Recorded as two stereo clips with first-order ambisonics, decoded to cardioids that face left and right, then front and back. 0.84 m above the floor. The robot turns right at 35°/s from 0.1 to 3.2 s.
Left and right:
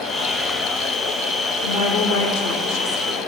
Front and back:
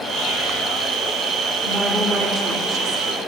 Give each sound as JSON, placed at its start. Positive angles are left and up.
{"t": 1.6, "sound": "a woman speaking", "azimuth_deg": 85, "distance_m": 1.7}